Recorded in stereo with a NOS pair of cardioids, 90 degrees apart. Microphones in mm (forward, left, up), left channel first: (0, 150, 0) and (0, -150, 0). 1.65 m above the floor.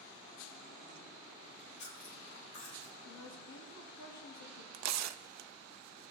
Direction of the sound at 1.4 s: 70° left.